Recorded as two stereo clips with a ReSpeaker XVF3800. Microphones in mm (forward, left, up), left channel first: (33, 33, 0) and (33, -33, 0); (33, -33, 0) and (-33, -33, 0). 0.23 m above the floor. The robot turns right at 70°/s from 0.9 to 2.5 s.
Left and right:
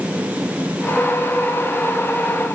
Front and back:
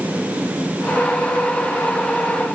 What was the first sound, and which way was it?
Only background noise.